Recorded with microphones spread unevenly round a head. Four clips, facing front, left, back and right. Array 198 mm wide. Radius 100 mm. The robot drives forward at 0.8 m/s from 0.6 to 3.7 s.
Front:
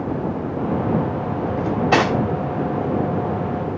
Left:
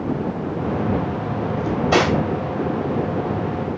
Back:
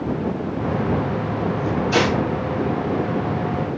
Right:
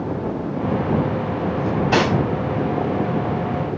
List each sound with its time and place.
1.6 s cutlery clinking: 25° left, 3 m; by 2.1 s 30° left, 2.5 m